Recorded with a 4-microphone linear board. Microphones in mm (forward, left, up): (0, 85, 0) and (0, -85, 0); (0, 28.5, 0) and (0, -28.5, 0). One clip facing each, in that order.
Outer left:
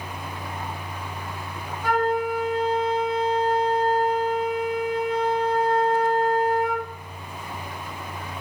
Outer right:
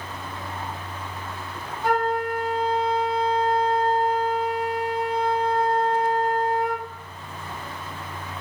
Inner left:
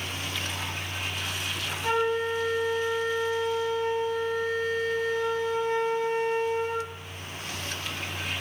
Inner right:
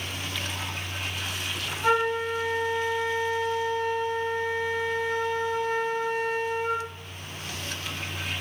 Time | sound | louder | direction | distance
1.8 | a flute | even, inner right 2 dB | 40° right (ahead or behind) | 1.3 m